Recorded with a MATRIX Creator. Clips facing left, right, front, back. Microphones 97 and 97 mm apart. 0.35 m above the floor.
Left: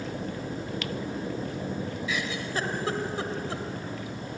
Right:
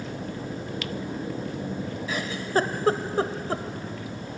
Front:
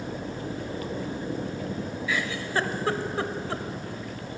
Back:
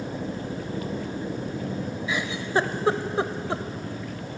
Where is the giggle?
120° right, 1.0 m.